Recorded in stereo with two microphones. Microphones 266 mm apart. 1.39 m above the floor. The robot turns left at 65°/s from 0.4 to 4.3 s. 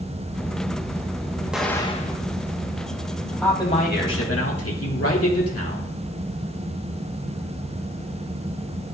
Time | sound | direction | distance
1.5 | an explosion | 175° right | 1.0 m
3.4 | a man speaking | 175° left | 2.5 m